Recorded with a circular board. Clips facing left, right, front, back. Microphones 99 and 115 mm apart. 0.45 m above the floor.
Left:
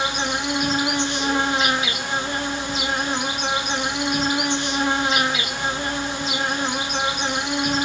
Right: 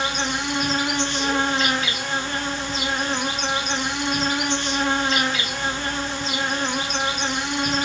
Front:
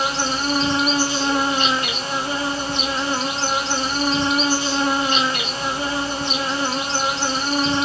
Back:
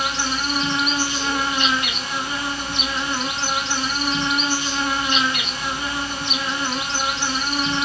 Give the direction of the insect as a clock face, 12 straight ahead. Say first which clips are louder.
Left 1 dB, front 2 dB; 11 o'clock.